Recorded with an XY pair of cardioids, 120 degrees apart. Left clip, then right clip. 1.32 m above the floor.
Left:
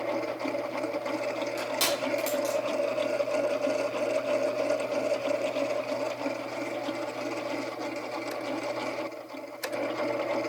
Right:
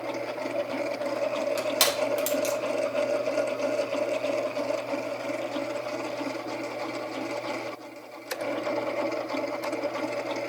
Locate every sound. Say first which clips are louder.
1.6 s crushing: right 4 dB; 50° right, 3 m